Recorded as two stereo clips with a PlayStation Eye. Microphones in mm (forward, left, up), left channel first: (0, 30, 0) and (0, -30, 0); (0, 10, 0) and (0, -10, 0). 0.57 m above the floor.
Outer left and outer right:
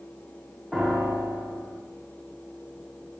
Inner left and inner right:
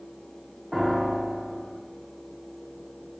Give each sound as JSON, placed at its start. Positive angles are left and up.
{"t": 0.7, "sound": "a piano", "side_deg": 0, "distance_m": 1.0}